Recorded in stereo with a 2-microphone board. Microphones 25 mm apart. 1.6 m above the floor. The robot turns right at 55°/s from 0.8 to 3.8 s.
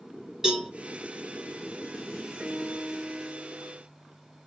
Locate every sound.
0.4 s a cowbell: 20° right (ahead or behind), 2.5 m
2.4 s a piano: 90° right, 3 m; by 3.8 s 15° right, 3 m